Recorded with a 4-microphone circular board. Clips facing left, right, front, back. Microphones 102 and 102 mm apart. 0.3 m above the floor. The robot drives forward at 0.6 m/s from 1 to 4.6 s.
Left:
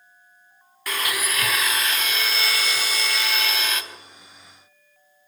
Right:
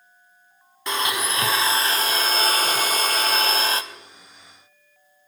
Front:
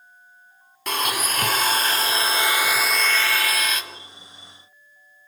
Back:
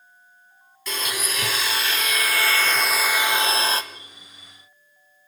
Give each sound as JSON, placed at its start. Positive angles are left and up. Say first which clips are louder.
{"t": 0.9, "sound": "a blender", "louder": "right 3 dB, front 5 dB", "azimuth_deg": -25, "distance_m": 1.4}